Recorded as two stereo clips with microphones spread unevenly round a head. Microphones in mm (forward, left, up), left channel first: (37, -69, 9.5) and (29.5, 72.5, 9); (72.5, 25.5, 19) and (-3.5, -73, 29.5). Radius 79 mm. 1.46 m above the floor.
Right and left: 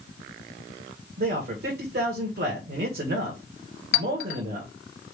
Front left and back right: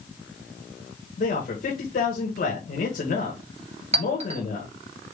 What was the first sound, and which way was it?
A man speaking, 85° left.